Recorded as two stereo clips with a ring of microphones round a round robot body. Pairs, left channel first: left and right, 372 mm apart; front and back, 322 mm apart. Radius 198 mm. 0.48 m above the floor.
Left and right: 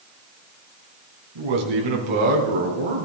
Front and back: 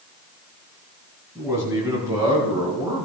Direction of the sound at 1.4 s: 100° right.